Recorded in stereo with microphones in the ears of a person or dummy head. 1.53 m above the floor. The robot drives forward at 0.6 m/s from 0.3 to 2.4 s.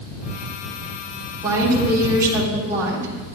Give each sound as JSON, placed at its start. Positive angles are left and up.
{"t": 1.4, "sound": "a woman speaking", "side_deg": -15, "distance_m": 4.5}